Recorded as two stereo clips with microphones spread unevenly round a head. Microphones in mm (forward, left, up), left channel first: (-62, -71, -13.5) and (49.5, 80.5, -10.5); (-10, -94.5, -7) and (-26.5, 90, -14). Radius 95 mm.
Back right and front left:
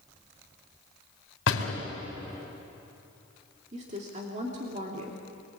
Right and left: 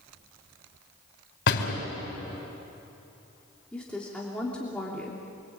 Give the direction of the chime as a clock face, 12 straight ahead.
No chime in this recording.